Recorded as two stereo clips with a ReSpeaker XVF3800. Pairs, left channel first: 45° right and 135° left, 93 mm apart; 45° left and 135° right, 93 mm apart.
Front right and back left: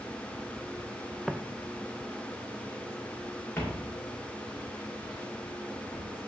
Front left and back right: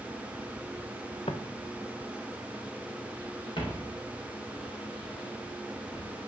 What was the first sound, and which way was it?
Footsteps, 45° left.